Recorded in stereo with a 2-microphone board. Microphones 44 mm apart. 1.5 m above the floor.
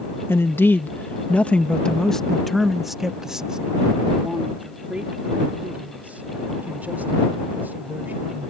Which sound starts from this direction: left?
A man speaking, at 0.3 s.